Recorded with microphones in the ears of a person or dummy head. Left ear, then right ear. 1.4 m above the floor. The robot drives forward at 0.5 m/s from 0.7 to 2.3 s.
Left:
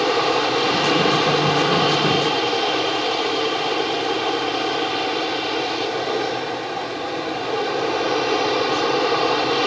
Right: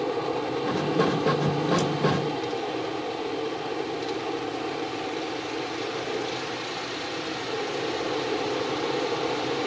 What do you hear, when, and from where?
0.0 s an aircraft: 60° left (ahead or behind)